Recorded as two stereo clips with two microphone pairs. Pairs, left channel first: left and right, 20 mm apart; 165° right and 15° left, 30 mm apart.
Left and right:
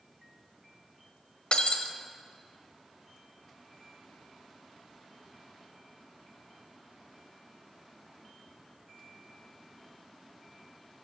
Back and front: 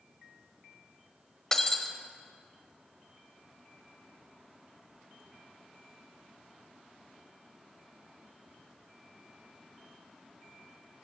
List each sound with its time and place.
1.5 s breaking glass: 120° left, 1.4 m